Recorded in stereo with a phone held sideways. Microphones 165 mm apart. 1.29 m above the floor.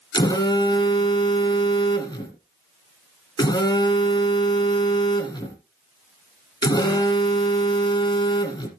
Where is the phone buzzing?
25° left (ahead or behind), 2.5 m.